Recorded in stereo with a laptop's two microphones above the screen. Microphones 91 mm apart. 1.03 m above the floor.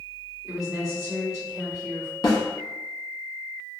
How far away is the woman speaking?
About 1.9 m.